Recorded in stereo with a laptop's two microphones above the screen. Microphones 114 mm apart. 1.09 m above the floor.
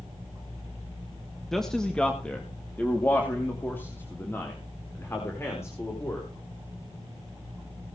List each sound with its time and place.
1.5 s a man speaking: centre (ahead or behind), 1.5 m; by 6.3 s 25° left (ahead or behind), 5 m